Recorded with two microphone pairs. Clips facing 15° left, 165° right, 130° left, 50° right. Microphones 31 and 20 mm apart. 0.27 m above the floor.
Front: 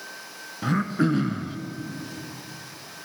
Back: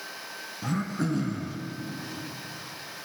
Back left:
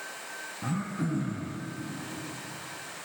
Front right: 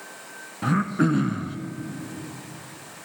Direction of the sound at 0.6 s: 40° right.